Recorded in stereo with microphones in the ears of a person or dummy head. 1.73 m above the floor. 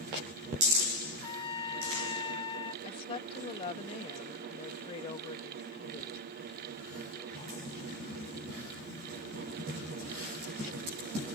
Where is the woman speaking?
40° left (ahead or behind).